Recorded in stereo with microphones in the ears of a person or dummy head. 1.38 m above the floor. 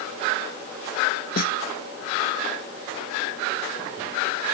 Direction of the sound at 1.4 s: 45° left (ahead or behind).